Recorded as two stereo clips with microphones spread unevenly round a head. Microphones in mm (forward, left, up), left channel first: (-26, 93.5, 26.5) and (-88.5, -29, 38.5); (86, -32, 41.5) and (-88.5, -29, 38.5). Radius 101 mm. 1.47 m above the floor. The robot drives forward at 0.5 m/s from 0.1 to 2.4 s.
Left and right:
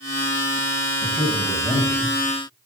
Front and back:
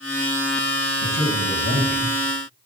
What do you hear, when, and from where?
1.0 s a man speaking: 30° right, 8 m